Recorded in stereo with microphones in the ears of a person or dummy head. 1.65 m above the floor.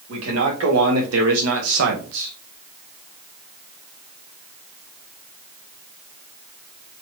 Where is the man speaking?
80° right, 2.5 m; by 2.3 s 65° right (ahead or behind), 1.0 m.